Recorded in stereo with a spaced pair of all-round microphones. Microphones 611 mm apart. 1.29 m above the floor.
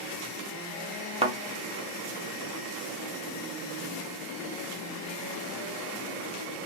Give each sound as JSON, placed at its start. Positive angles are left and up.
{"t": 1.2, "sound": "a thud", "side_deg": -10, "distance_m": 0.6}